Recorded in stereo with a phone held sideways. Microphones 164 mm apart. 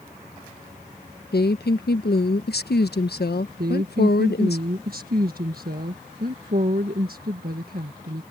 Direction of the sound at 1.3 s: 75° left (ahead or behind).